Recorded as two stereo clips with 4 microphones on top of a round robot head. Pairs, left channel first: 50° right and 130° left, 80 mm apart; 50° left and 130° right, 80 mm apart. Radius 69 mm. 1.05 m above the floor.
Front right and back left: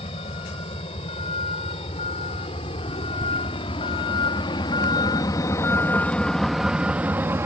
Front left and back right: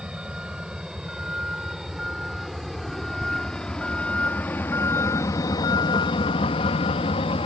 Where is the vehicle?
50° right; by 7.5 s 70° left.